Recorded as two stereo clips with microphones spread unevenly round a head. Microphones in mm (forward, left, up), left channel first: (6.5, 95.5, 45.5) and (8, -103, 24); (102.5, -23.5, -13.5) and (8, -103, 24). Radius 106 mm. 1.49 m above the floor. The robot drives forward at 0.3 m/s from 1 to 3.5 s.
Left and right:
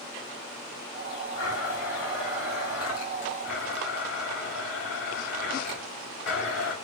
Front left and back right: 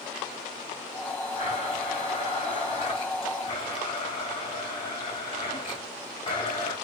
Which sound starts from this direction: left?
A blender, at 1.4 s.